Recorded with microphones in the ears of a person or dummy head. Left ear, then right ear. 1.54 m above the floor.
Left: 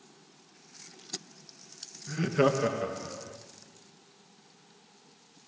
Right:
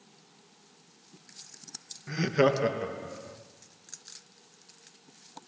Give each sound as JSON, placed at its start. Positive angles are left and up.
{"t": 2.1, "sound": "laughter", "side_deg": -35, "distance_m": 1.6}